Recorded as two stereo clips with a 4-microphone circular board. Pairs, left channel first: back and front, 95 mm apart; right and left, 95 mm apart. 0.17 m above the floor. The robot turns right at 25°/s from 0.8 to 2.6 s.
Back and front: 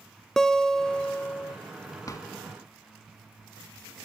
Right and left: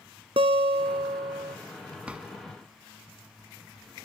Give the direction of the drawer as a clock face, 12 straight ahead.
7 o'clock.